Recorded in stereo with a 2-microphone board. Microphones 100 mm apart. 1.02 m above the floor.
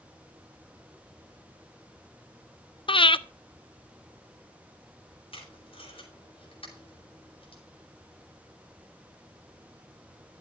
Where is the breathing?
65° left (ahead or behind), 0.5 m.